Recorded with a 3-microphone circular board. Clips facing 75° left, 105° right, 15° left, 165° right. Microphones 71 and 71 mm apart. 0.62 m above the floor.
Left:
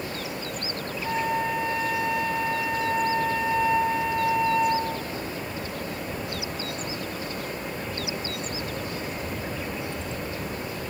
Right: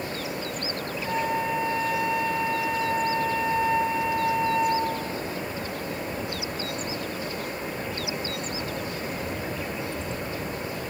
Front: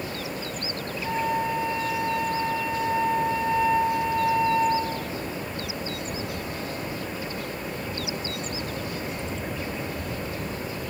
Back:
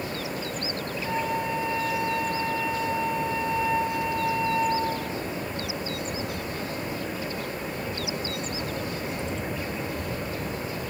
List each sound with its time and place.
1.0 s a flute: 15° right, 0.9 m